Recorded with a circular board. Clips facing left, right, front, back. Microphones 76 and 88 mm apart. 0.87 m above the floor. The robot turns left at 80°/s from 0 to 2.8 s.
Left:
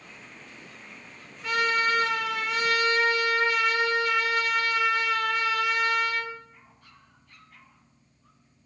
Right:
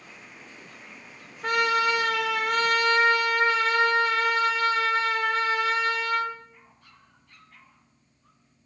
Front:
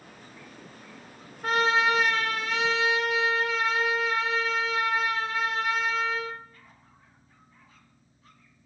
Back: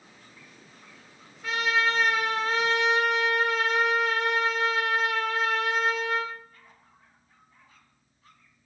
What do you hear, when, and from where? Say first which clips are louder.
1.4 s a trumpet: right 2 dB, front 3 dB; 40° right, 0.6 m; by 6.3 s 150° right, 0.6 m